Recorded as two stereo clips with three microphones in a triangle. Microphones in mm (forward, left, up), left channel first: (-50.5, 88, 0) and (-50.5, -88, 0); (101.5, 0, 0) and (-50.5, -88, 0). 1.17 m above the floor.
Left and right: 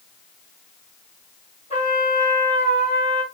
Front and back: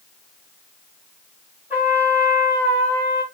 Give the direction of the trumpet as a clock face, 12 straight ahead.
8 o'clock.